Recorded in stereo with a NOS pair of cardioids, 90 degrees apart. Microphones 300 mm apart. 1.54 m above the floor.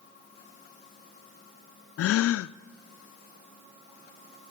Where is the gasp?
55° left, 0.6 m.